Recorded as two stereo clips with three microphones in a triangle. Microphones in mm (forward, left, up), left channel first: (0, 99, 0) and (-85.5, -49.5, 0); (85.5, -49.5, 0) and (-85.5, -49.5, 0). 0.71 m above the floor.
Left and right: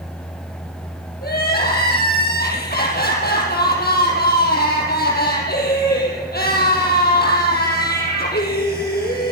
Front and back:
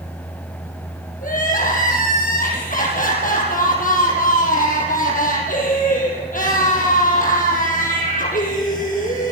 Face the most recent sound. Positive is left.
turn(degrees=35)